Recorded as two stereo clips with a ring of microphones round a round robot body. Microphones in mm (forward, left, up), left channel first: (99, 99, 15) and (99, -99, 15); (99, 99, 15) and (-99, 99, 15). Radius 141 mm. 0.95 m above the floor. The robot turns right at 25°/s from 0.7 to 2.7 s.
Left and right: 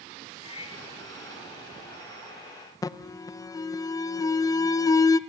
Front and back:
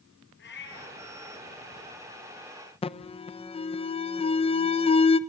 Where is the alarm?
30° left, 0.8 m.